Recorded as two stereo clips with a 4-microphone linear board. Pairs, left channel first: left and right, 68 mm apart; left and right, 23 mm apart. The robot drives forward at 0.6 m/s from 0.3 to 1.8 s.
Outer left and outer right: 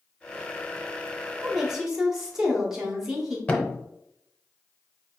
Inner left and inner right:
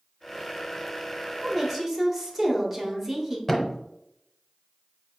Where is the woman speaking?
5° right (ahead or behind), 1.0 m.